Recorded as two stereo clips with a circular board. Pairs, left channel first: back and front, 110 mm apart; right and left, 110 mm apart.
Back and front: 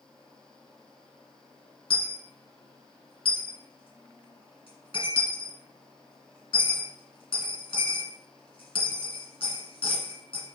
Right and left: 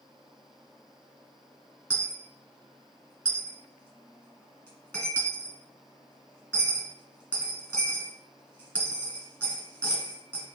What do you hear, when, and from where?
1.9 s a dropped coin: 165° right, 1.7 m